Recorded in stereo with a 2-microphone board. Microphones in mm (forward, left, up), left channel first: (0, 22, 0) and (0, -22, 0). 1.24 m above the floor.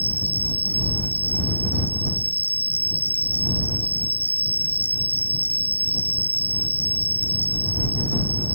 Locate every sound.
0.0 s an insect: 45° right (ahead or behind)